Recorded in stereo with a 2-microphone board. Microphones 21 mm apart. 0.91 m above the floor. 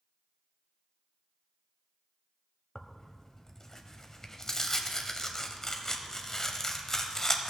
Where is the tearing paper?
20° left (ahead or behind), 0.8 m.